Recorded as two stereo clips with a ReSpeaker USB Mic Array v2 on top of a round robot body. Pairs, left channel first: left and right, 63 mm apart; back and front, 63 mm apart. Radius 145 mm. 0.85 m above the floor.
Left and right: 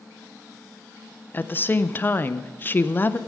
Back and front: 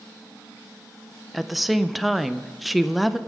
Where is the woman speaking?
90° left, 0.7 m.